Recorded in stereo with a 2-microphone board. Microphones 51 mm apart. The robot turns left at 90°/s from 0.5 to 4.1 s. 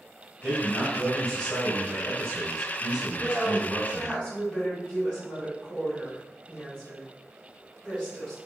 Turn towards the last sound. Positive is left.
turn(degrees=25)  # may be behind; listen again after turning